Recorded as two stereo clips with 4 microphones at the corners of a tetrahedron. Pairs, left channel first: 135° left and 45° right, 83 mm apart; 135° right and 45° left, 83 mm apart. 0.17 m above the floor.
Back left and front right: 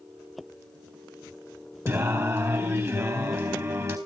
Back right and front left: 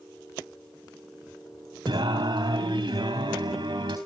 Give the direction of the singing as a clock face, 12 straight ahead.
12 o'clock.